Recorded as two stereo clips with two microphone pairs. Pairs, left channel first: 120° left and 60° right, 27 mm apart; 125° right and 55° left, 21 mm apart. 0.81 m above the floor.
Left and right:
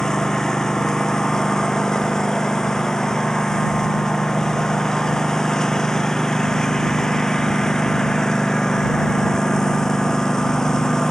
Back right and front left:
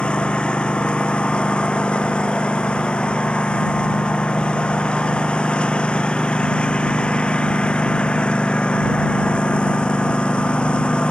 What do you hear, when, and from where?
0.0 s a lawn mower: 170° right